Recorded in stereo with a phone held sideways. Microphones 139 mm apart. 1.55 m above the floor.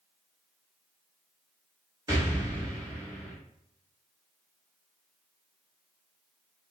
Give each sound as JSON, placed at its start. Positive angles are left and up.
{"t": 2.1, "sound": "an explosion", "side_deg": -30, "distance_m": 1.4}